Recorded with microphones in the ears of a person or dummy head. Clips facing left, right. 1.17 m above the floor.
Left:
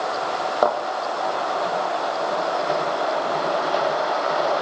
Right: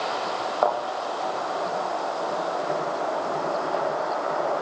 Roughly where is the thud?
Left.